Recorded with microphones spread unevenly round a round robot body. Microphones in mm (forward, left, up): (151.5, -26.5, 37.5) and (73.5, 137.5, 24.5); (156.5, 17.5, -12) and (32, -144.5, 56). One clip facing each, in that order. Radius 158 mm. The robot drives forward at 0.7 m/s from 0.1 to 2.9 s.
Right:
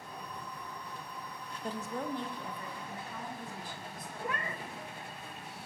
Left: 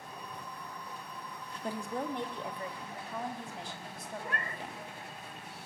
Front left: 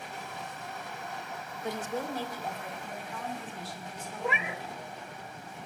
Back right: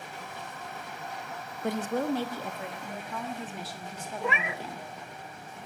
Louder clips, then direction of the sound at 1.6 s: Left 1 dB, back right 6 dB; 170° right.